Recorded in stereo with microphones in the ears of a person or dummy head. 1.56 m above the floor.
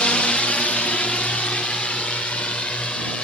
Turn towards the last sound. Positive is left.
turn(degrees=10)  # may be behind; listen again after turning